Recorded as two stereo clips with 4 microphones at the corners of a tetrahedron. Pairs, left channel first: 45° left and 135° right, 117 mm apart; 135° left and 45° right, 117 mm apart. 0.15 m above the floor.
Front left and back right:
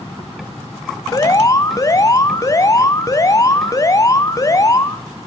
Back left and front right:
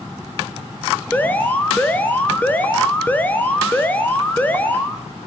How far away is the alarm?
About 1.0 m.